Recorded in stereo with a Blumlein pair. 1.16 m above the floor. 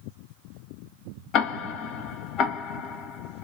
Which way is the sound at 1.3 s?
30° left.